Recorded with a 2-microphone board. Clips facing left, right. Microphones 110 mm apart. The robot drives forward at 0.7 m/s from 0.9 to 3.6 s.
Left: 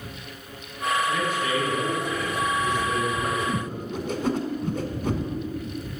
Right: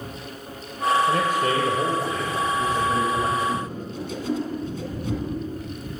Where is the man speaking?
55° right (ahead or behind), 1.9 m; by 3.3 s 35° right (ahead or behind), 2.5 m.